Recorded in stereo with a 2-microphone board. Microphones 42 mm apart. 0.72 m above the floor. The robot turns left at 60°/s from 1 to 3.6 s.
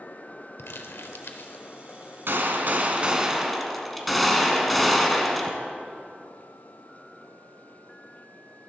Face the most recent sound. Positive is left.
turn(degrees=180)